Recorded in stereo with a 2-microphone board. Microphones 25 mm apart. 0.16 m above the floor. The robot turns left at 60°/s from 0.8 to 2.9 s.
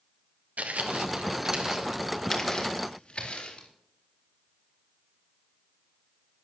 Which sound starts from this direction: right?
Footsteps, at 0.6 s.